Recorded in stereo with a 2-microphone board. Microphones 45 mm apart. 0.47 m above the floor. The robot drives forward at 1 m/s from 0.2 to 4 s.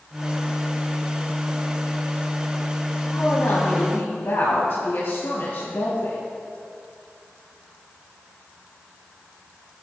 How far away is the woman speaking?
About 3 m.